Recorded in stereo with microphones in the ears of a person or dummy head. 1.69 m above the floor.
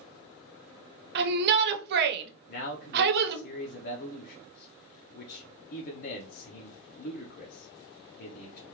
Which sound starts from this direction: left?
A man speaking, at 2.5 s.